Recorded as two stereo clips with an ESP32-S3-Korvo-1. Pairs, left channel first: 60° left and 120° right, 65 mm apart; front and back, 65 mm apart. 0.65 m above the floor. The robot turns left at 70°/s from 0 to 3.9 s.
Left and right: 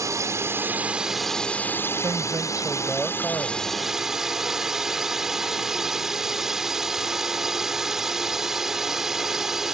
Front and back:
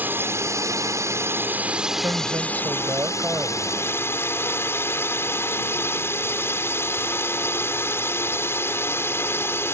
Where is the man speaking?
145° right; by 3.8 s 95° left.